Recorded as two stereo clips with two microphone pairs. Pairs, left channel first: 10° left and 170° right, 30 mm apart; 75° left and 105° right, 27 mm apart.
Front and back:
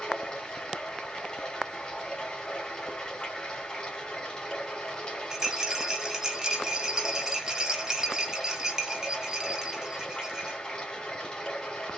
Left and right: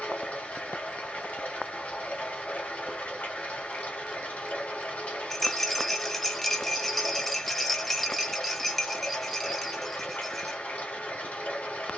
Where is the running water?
70° left, 2.5 m.